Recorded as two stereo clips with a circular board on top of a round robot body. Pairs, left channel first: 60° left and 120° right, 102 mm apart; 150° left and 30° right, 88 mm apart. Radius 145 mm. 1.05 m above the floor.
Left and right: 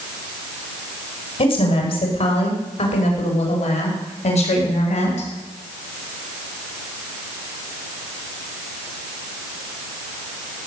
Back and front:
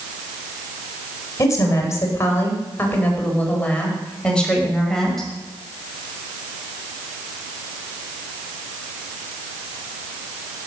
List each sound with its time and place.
1.4 s a woman speaking: 95° left, 4.5 m; by 5.3 s 65° left, 5.5 m